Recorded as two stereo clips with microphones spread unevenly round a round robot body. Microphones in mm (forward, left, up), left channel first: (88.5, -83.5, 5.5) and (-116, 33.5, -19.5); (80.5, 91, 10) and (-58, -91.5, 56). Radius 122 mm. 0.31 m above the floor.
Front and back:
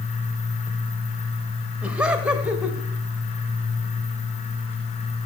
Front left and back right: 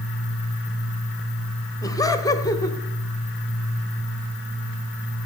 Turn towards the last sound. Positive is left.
turn(degrees=80)